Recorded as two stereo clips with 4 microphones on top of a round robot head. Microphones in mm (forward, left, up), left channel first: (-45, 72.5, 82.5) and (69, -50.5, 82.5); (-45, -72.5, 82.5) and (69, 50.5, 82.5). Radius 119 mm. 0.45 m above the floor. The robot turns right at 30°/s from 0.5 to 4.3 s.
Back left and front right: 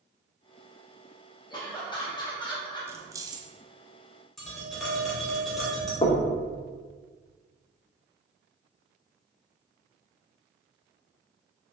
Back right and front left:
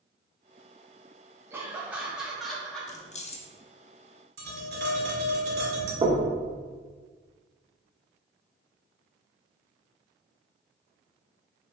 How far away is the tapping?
About 1.9 m.